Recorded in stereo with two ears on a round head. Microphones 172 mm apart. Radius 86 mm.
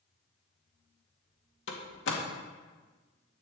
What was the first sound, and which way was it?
A door slam, 70° left (ahead or behind).